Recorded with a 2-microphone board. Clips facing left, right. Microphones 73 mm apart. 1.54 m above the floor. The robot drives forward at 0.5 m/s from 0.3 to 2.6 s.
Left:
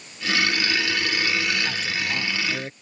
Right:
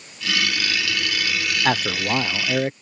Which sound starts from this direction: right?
A man speaking, at 1.6 s.